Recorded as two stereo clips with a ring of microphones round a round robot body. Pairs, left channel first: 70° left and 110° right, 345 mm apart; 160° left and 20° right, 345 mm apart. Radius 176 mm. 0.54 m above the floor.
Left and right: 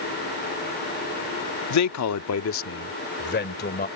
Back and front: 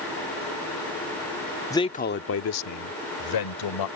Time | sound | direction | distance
1.7 | a man speaking | 75° left | ?